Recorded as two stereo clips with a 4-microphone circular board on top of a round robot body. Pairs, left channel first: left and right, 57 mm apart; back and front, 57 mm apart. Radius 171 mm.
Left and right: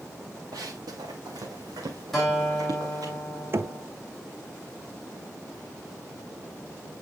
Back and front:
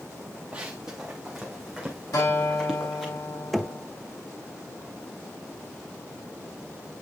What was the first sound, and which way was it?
Running footsteps, 70° right.